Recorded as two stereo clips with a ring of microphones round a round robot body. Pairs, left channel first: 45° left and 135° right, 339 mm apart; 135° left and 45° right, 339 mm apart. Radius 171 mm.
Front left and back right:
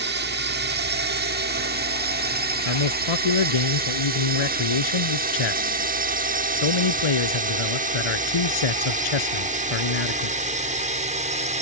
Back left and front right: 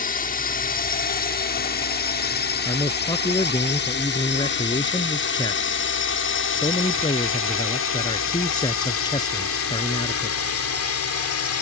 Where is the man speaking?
55° left.